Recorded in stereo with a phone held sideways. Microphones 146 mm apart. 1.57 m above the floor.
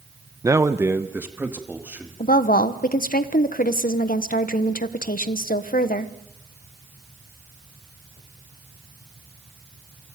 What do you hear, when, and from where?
0.4 s a man speaking: 20° right (ahead or behind), 0.7 m; by 2.1 s 10° right (ahead or behind), 3 m
2.2 s a woman speaking: 75° left (ahead or behind), 1.1 m